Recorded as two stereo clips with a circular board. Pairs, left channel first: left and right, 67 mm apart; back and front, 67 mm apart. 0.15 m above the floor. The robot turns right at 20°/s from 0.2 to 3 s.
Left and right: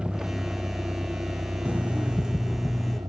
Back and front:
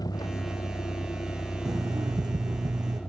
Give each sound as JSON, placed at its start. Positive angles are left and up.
{"t": 0.0, "sound": "a vehicle", "azimuth_deg": -165}
{"t": 1.6, "sound": "an alarm clock", "azimuth_deg": -20}